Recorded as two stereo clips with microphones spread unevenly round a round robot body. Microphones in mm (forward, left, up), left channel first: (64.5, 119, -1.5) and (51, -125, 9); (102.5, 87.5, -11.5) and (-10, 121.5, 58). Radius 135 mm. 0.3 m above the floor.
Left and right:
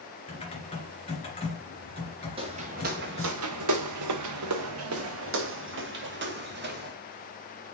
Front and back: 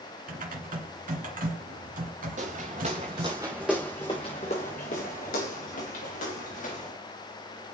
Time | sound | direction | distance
0.3 | typing on a keyboard | 155° left | 2.5 m
2.4 | footsteps | 165° right | 1.7 m